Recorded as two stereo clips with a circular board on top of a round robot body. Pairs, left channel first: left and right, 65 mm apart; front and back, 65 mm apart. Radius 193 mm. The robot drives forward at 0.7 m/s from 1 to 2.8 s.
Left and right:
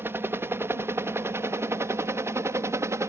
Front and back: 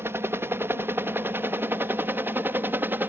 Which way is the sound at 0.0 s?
135° right.